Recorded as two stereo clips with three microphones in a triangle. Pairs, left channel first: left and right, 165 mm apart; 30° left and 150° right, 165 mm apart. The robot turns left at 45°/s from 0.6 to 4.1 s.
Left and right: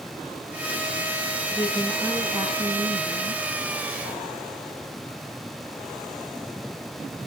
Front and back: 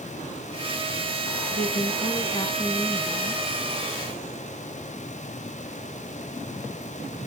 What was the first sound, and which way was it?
A woman speaking, 25° left.